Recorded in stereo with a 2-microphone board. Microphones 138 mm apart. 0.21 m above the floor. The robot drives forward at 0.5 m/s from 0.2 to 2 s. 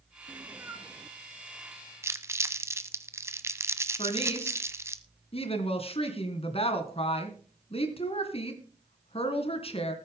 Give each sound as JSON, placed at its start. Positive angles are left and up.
{"t": 0.3, "sound": "a cat meowing", "side_deg": -20, "distance_m": 0.8}
{"t": 2.0, "sound": "crumpling", "side_deg": -20, "distance_m": 1.1}
{"t": 4.0, "sound": "a woman speaking", "side_deg": 45, "distance_m": 2.5}